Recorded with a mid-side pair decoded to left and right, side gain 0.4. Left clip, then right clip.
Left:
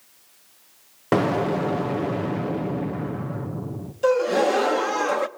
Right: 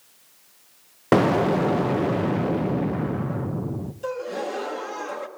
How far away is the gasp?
About 1.2 m.